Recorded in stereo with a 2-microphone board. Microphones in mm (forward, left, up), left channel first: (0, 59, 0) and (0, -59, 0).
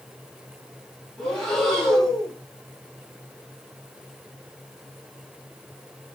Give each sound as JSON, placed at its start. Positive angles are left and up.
{"t": 1.2, "sound": "breathing", "side_deg": 5, "distance_m": 1.7}